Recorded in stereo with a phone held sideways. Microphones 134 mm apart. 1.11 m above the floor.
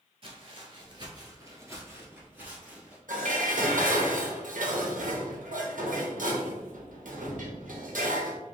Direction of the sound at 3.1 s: 80° right.